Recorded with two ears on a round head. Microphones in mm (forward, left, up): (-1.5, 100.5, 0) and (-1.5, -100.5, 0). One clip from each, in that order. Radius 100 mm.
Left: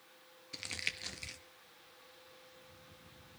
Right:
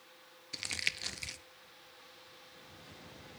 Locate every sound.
0.5 s crumpling: 15° right (ahead or behind), 0.5 m